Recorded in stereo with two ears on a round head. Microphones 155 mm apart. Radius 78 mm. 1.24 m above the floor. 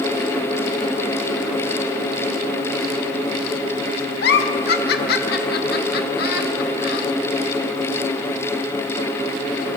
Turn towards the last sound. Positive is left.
turn(degrees=60)  # may be behind; listen again after turning